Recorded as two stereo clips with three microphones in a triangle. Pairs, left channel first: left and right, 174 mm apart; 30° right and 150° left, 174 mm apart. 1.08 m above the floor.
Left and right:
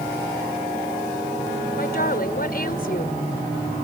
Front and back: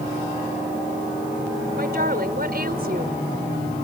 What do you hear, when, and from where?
1.8 s a woman speaking: 120° left